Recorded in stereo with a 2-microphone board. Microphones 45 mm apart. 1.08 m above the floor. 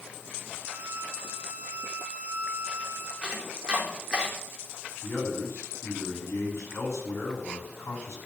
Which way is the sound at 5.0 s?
75° left (ahead or behind).